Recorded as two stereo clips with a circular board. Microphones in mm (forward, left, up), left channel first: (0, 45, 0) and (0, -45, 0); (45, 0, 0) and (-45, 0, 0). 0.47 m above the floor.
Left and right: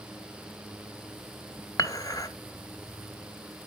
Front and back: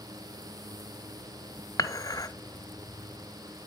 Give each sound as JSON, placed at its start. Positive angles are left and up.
{"t": 1.8, "sound": "dishes clattering", "azimuth_deg": 45, "distance_m": 0.9}